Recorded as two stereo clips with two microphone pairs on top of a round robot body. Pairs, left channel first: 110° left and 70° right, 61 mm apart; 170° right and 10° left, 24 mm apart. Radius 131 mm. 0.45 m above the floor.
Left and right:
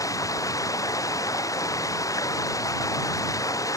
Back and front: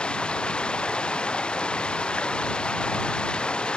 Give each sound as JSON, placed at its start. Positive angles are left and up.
{"t": 0.0, "sound": "running water", "azimuth_deg": 140}